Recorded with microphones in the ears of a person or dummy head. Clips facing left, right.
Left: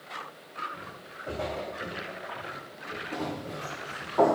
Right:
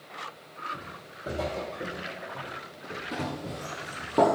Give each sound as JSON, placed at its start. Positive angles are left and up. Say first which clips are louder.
{"t": 0.7, "sound": "footsteps", "louder": "right 1 dB", "side_deg": -50, "distance_m": 3.0}
{"t": 3.1, "sound": "running footsteps", "louder": "even", "side_deg": -30, "distance_m": 2.0}